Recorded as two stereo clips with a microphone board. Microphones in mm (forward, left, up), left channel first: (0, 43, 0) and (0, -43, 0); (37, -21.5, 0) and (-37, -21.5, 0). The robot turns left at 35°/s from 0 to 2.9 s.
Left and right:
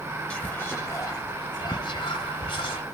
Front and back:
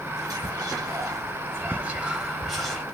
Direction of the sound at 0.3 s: 165° left.